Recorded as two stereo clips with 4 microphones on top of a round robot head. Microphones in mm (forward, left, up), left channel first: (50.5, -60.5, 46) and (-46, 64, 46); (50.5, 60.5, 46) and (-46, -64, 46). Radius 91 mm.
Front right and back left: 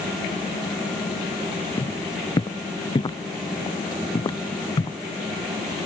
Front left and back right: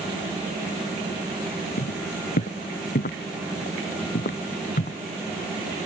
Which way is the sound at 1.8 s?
15° left.